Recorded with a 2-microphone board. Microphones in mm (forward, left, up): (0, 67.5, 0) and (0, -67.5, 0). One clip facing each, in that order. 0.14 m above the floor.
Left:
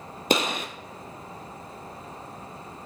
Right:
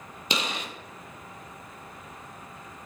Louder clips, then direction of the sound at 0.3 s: Left 7 dB; 50° left (ahead or behind).